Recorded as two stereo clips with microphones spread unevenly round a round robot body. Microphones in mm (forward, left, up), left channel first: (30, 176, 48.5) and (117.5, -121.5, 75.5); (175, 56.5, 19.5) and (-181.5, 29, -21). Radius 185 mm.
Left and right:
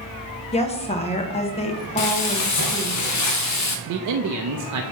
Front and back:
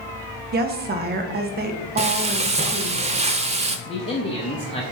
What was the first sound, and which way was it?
A woman speaking, 155° left.